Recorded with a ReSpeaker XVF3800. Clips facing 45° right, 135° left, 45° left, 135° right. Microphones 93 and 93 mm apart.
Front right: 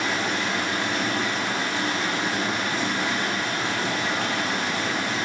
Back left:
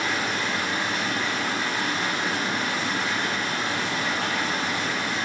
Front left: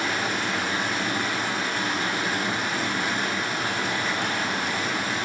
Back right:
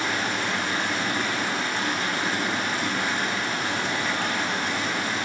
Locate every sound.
0.0 s running water: 35° right, 1.0 m